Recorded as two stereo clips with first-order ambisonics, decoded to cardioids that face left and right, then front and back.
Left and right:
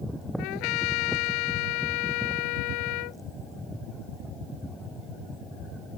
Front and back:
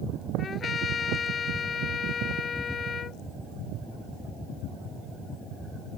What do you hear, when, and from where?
0.4 s a trumpet: 65° left